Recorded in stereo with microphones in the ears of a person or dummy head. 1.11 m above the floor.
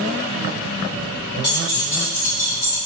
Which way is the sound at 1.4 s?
15° left (ahead or behind).